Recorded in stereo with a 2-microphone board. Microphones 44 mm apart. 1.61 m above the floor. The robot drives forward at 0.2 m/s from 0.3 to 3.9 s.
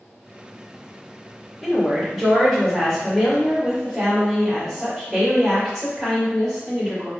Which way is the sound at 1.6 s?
Centre (ahead or behind).